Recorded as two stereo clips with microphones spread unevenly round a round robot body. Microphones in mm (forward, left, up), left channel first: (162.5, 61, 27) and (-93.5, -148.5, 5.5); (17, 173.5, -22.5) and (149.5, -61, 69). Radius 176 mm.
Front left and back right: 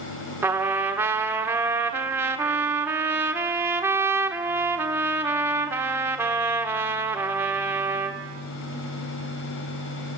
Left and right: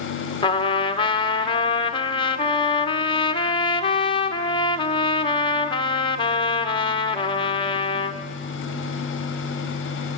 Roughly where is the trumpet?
Behind left.